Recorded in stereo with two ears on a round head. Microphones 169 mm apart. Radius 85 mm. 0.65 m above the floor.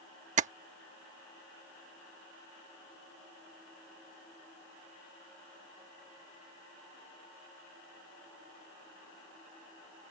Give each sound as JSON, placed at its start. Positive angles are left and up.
{"t": 0.4, "sound": "tapping", "side_deg": -40}